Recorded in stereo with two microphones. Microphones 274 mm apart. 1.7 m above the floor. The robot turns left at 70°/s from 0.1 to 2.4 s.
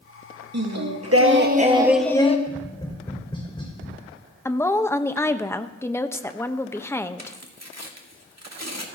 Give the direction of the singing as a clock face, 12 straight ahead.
3 o'clock.